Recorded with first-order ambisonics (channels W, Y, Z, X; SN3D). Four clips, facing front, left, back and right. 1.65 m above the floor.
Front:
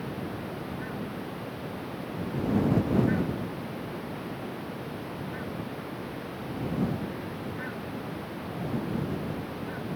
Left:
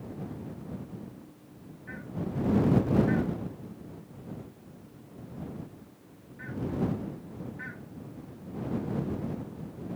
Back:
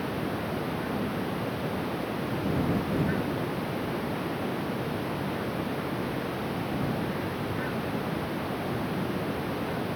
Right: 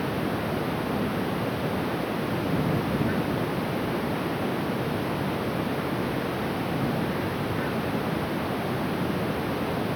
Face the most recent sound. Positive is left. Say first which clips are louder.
# right 13 dB, back 4 dB
turn(degrees=-110)